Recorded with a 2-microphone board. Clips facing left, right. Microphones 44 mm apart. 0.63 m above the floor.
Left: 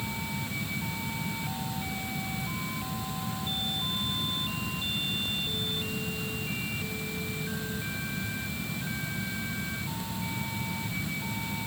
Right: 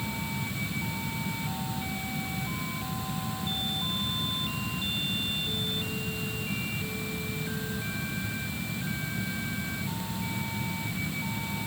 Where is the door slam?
No door slam in this recording.